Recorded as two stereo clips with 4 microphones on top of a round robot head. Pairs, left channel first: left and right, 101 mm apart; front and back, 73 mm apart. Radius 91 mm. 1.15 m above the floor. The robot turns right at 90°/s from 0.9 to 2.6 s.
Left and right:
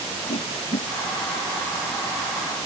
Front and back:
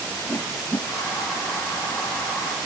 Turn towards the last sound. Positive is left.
turn(degrees=-140)